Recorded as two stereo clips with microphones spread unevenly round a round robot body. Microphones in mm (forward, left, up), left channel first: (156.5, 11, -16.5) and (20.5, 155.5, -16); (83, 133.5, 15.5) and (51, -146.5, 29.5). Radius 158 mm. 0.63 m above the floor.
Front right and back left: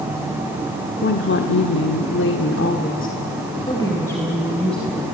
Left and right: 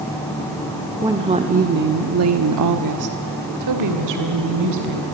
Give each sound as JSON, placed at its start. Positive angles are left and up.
{"t": 1.0, "sound": "a woman speaking", "azimuth_deg": -20, "distance_m": 1.8}